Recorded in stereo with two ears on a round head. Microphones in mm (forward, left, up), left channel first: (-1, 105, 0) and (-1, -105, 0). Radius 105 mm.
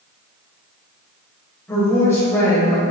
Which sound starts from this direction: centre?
A woman speaking, at 1.7 s.